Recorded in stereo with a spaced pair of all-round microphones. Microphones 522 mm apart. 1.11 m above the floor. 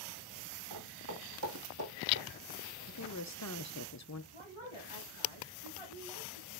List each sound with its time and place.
0.7 s footsteps: 40° right (ahead or behind), 4 m; by 2.3 s 20° right (ahead or behind), 2 m
2.9 s a woman speaking: 30° left (ahead or behind), 0.7 m
4.3 s a woman speaking: 60° right (ahead or behind), 3 m